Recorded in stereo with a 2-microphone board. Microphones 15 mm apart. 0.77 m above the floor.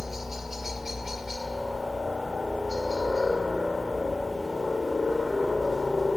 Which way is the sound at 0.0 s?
25° right (ahead or behind).